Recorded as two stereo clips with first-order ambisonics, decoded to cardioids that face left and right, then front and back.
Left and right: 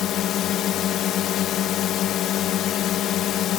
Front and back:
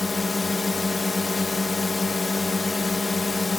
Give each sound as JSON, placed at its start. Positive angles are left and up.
{"t": 0.0, "sound": "a drone", "azimuth_deg": 75}